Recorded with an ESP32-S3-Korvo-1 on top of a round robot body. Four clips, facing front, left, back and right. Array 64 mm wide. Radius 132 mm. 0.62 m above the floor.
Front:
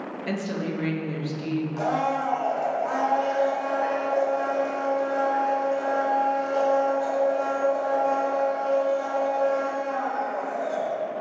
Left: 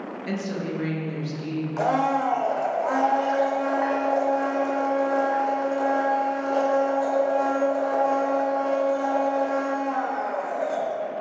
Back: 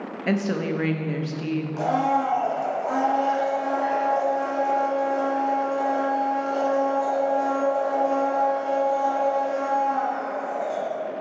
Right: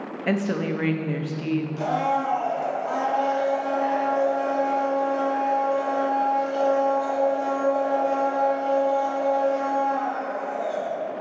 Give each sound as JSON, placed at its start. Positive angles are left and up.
{"t": 0.3, "sound": "a woman speaking", "azimuth_deg": -130, "distance_m": 1.0}
{"t": 1.8, "sound": "a blender", "azimuth_deg": 95, "distance_m": 1.2}